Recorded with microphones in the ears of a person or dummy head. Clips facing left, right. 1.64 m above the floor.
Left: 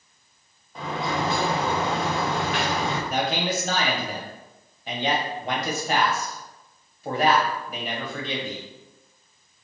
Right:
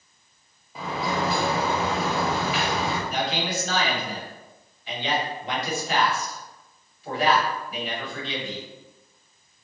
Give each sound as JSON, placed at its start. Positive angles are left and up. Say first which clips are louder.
{"t": 0.8, "sound": "a sliding door", "louder": "even", "side_deg": -5, "distance_m": 1.0}
{"t": 3.1, "sound": "a man speaking", "louder": "left 2 dB", "side_deg": 45, "distance_m": 1.5}